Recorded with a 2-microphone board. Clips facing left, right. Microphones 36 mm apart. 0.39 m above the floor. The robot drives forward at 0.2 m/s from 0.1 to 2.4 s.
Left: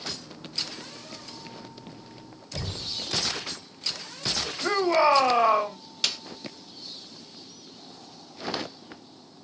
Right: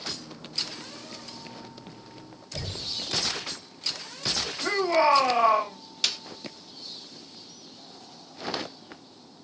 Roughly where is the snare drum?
Centre.